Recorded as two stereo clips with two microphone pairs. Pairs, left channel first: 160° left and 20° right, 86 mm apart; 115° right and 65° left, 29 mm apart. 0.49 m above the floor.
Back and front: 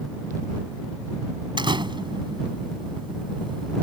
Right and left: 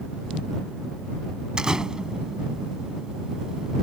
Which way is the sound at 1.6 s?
Straight ahead.